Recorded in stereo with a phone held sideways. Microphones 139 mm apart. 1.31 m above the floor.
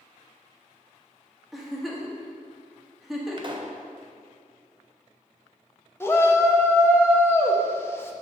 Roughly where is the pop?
Right.